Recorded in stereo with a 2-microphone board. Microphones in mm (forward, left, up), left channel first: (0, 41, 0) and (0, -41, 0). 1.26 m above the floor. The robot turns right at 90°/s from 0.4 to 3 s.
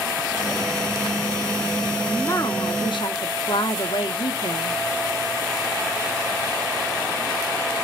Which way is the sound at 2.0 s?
15° left.